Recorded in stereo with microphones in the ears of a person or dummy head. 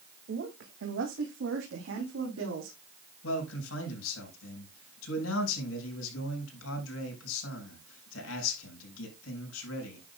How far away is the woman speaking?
About 1.8 m.